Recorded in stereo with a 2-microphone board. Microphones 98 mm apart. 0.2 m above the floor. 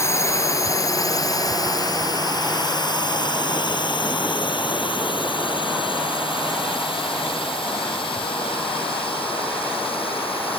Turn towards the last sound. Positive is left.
turn(degrees=70)  # may be behind; listen again after turning